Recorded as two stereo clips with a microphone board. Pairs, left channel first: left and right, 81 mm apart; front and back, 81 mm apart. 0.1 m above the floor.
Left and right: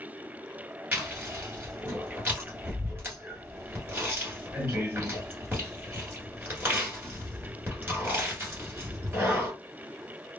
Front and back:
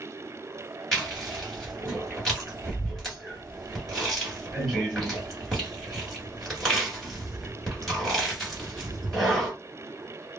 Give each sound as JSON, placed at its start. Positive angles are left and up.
{"t": 0.9, "sound": "chewing", "azimuth_deg": -80, "distance_m": 1.8}